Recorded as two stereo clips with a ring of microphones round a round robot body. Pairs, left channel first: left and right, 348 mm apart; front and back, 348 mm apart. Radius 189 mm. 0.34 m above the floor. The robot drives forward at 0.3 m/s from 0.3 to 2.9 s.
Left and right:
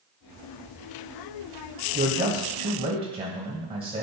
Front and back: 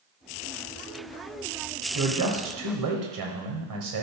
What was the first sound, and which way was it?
A man speaking, 160° right.